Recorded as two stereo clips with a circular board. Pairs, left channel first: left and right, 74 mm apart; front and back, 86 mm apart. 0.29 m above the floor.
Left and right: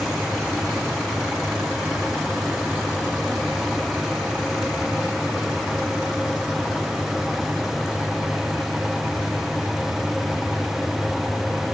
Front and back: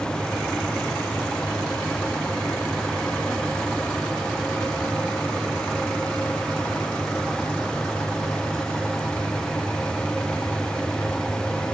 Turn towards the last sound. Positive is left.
No sound to turn to.